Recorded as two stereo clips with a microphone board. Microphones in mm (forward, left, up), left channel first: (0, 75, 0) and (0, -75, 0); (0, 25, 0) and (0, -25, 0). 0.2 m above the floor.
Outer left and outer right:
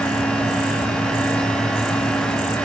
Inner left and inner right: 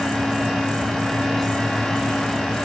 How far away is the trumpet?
No trumpet in this recording.